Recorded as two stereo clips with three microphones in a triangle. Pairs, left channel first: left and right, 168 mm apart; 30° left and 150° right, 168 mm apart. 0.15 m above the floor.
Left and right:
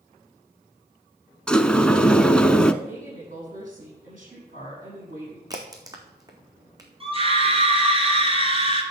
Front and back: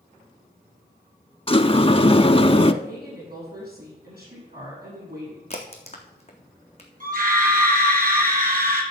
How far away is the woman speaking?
About 6.5 m.